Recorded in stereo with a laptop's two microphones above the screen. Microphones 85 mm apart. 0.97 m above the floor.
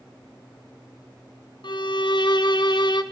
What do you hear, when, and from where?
1.6 s a violin: 65° left (ahead or behind), 1.1 m